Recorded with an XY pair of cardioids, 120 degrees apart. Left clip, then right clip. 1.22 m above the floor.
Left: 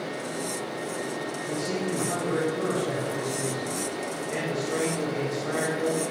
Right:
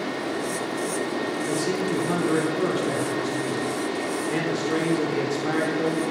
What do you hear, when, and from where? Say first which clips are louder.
0.0 s a fan: right 4 dB; 65° right, 2 m
1.5 s a man speaking: right 3 dB; 55° right, 4 m